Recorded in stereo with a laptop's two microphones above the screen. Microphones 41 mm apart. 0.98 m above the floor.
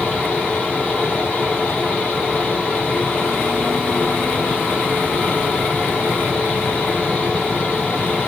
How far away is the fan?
About 1.4 m.